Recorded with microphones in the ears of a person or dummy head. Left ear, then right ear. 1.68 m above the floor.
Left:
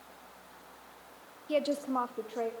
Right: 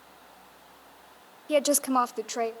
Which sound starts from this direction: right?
A woman speaking, at 1.5 s.